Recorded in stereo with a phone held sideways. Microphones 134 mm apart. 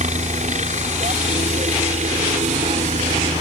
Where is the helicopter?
60° right (ahead or behind).